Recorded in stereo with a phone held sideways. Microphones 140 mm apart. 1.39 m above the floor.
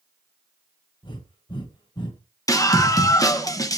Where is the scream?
25° left (ahead or behind), 1.2 m.